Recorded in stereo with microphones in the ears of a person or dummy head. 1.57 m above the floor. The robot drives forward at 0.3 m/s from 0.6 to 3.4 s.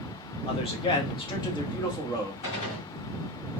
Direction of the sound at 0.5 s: 30° left (ahead or behind).